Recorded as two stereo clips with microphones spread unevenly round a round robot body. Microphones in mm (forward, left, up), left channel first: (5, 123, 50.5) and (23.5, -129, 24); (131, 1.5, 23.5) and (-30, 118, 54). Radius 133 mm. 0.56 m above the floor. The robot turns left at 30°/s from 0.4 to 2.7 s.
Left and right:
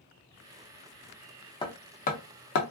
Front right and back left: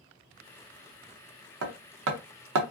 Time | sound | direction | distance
1.6 | hammering | 165° left | 0.7 m